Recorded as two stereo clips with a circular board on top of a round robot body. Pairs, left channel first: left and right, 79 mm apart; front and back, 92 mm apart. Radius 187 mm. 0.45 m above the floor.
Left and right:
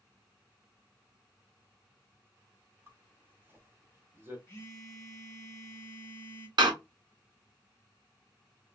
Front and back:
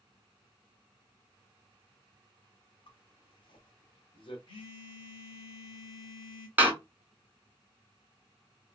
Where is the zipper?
25° right, 0.8 m.